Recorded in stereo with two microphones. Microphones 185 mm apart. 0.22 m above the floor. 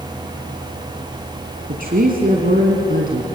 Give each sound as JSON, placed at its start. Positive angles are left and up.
{"t": 1.7, "sound": "a woman speaking", "side_deg": -55, "distance_m": 2.5}